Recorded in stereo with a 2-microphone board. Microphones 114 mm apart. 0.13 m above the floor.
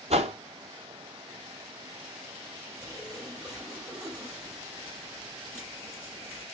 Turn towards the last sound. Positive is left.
turn(degrees=-10)  # may be behind; listen again after turning